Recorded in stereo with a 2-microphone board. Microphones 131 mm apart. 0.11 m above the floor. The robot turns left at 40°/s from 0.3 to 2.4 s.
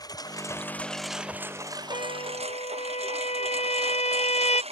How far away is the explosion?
I don't hear an explosion.